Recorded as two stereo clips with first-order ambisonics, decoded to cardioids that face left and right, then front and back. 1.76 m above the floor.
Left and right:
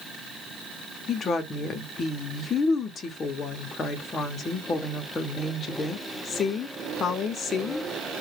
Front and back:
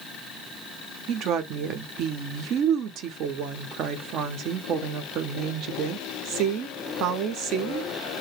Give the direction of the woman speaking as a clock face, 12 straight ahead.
7 o'clock.